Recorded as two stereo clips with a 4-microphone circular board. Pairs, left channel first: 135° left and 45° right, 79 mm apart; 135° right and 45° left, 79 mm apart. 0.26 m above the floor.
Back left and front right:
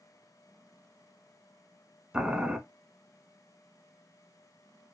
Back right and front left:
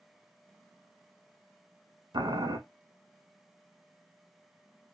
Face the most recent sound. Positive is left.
turn(degrees=35)